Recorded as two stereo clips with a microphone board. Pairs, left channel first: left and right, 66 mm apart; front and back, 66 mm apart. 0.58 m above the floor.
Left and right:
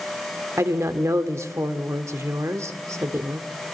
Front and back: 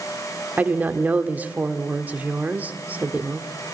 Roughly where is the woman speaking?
Behind right.